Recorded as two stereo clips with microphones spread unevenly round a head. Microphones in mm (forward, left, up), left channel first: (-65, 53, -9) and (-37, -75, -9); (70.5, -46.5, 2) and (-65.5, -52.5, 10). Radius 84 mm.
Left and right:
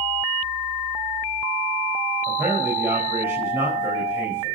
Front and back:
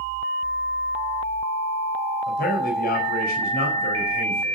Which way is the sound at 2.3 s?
Straight ahead.